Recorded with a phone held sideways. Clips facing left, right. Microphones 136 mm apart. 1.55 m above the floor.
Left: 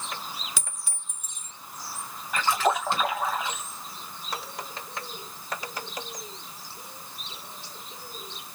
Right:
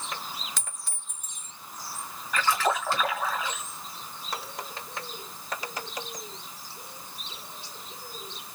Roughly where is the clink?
Centre.